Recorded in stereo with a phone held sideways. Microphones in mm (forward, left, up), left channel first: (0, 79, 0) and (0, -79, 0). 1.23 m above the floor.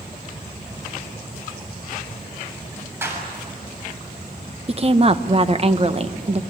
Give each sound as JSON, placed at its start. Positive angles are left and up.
{"t": 3.0, "sound": "a clap", "side_deg": -15, "distance_m": 7.0}
{"t": 4.7, "sound": "a woman speaking", "side_deg": -40, "distance_m": 1.2}